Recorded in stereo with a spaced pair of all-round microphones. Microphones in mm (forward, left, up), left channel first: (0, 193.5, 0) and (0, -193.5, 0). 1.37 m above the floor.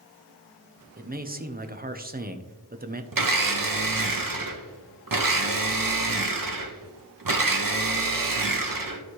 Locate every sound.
1.0 s a man speaking: 25° right (ahead or behind), 0.7 m
3.1 s a blender: 60° right (ahead or behind), 0.8 m